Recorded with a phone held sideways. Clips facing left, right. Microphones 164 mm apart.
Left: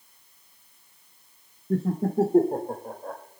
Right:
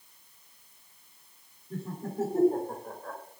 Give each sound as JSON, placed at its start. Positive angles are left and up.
{"t": 1.7, "sound": "laughter", "side_deg": 85, "distance_m": 1.3}